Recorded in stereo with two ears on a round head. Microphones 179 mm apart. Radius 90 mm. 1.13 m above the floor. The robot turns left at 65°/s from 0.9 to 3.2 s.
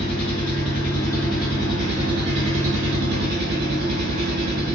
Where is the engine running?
30° left, 1.0 m; by 4.8 s 120° right, 1.0 m.